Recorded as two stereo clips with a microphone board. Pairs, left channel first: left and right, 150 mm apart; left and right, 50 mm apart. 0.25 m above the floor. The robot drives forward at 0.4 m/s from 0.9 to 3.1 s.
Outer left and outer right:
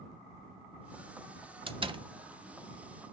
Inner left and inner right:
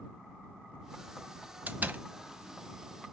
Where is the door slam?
35° right (ahead or behind), 0.9 m.